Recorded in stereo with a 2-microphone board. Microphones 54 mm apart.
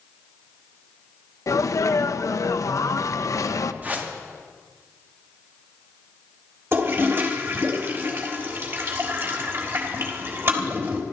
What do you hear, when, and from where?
1.5 s a sneeze: 70° left (ahead or behind), 0.9 m
3.8 s a whoosh: 30° right (ahead or behind), 2.0 m
6.7 s a toilet flushing: 50° right (ahead or behind), 3.5 m